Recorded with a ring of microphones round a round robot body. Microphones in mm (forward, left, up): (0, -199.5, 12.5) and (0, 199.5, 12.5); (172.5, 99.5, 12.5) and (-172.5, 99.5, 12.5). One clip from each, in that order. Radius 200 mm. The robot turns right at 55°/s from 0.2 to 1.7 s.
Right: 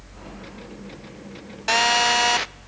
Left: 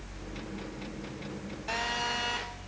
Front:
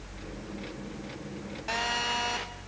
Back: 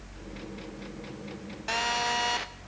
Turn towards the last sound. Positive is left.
turn(degrees=-110)